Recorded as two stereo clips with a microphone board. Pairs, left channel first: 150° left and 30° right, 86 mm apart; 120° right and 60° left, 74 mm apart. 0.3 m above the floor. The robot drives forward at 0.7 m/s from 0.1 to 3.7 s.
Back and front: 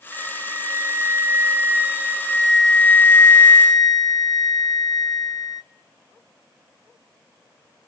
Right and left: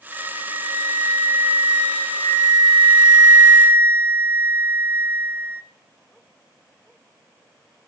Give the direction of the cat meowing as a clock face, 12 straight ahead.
No cat meowing in this recording.